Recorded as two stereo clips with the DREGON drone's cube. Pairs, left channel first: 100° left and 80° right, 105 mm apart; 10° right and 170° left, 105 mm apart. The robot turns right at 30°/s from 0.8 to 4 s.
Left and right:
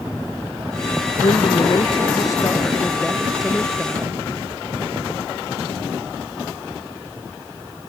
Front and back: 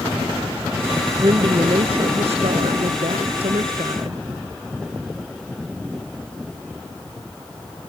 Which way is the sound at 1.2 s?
125° left.